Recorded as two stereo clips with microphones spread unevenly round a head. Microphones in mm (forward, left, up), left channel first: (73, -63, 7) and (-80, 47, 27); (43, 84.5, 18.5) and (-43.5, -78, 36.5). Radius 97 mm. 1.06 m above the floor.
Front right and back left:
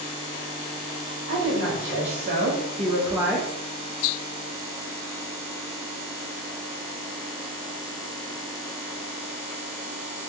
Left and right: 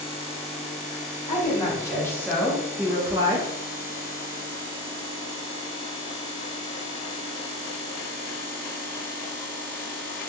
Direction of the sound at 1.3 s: 125° left.